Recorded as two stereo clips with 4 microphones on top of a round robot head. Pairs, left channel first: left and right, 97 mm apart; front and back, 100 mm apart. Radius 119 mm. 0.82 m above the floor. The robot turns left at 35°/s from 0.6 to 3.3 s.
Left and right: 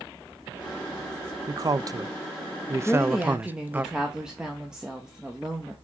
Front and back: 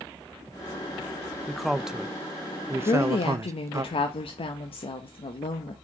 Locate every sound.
1.5 s a man speaking: 85° right, 0.5 m; by 3.9 s 150° right, 0.5 m
2.9 s a woman speaking: 10° left, 0.7 m; by 5.7 s 5° right, 0.7 m